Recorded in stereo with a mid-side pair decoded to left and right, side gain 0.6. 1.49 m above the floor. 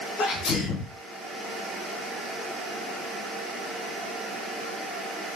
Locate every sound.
0.2 s a sneeze: 60° left, 1.4 m